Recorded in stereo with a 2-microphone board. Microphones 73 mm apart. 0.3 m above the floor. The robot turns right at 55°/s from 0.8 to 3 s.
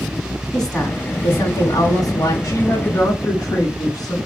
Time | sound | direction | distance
0.5 | a woman speaking | 10° left | 2.0 m
2.4 | a woman speaking | 85° left | 2.5 m